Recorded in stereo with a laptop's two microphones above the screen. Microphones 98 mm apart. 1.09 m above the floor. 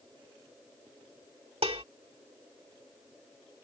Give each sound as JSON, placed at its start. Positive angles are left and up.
{"t": 1.6, "sound": "dishes clattering", "side_deg": -75}